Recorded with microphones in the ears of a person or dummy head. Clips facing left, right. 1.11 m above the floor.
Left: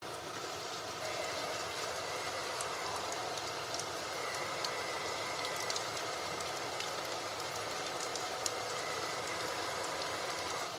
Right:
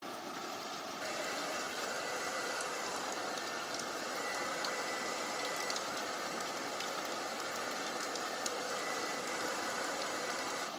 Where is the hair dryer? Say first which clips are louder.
Left 1 dB; 20° right (ahead or behind), 1.9 m.